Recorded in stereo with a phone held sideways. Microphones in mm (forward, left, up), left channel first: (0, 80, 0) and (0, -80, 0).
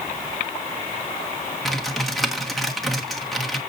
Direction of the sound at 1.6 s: Centre (ahead or behind).